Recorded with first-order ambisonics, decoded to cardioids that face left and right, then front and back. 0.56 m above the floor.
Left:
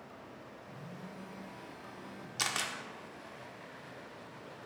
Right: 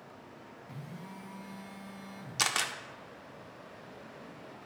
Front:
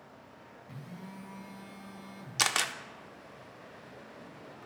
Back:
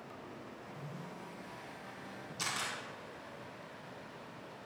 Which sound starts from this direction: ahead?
A camera shutter, at 2.4 s.